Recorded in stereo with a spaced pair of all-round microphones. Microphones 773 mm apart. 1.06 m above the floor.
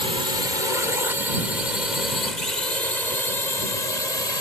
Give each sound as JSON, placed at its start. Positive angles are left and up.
{"t": 0.0, "sound": "a drone", "side_deg": 70}